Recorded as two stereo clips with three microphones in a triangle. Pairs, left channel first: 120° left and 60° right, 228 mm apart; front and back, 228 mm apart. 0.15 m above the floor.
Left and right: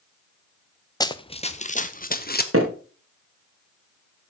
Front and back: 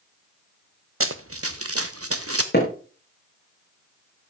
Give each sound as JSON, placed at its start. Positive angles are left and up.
{"t": 1.0, "sound": "running footsteps", "azimuth_deg": -165, "distance_m": 1.0}
{"t": 2.5, "sound": "hammering", "azimuth_deg": -45, "distance_m": 4.5}